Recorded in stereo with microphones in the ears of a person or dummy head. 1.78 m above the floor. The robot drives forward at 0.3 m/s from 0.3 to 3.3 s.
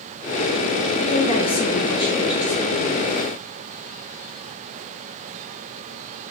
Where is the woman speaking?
35° left (ahead or behind), 0.5 m; by 3.0 s 20° left (ahead or behind), 1.1 m.